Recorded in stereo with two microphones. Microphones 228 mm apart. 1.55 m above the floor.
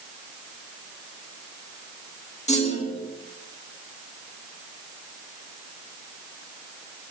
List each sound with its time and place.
2.5 s a clunk: 30° left (ahead or behind), 1.6 m